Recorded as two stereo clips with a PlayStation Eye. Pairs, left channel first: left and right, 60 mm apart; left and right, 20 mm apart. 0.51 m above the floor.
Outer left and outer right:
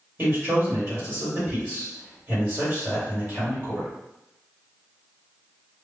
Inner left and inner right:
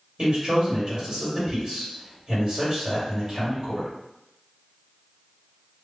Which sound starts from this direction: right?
A man speaking, at 0.2 s.